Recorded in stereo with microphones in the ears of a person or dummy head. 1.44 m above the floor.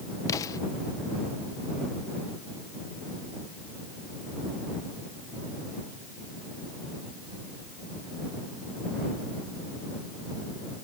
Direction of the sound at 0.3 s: 20° left (ahead or behind).